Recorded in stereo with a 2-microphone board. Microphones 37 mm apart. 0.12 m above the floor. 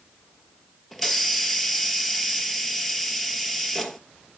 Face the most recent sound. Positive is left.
turn(degrees=5)  # may be behind; listen again after turning